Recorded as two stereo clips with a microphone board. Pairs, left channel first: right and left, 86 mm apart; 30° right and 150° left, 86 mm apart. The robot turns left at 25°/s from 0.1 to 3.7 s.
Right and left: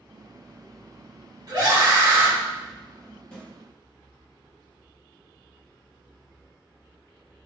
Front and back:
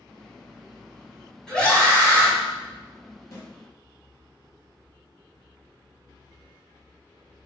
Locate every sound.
1.5 s a scream: 50° left, 1.9 m; by 2.3 s 30° left, 1.9 m
3.3 s a snare drum: 20° right, 1.3 m; by 3.5 s 25° right, 1.3 m